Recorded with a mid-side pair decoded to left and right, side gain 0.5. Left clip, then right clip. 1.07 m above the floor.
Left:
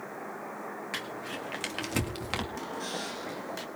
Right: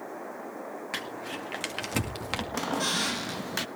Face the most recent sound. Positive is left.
turn(degrees=-60)